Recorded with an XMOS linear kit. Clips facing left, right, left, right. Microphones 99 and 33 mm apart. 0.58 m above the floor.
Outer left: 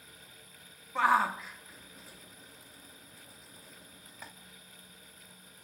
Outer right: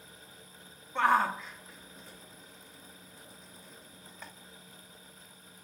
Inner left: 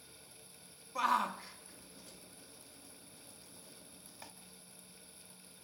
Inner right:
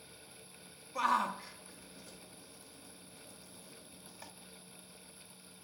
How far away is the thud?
No thud in this recording.